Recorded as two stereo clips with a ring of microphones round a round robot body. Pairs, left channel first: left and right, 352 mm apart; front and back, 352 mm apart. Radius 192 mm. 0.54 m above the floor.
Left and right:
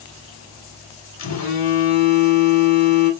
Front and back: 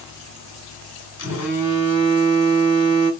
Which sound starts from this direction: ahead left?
A phone buzzing, at 1.2 s.